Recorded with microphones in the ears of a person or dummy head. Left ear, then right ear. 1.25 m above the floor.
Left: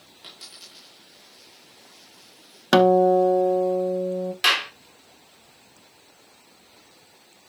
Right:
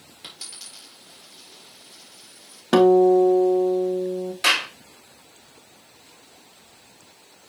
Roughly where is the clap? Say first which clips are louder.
Even; left.